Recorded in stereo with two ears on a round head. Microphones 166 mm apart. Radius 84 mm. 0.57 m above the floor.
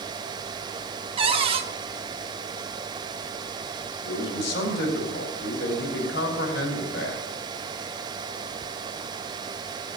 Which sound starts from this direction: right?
A cupboard door, at 1.2 s.